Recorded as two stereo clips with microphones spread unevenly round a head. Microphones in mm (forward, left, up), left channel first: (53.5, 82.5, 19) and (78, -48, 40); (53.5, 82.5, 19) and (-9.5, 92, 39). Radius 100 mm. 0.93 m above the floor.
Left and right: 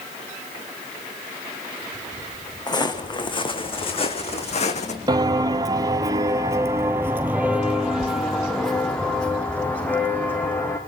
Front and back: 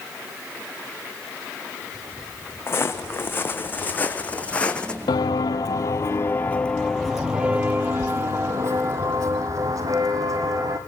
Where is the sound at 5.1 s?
40° right, 1.3 m; by 10.8 s 175° right, 2.5 m.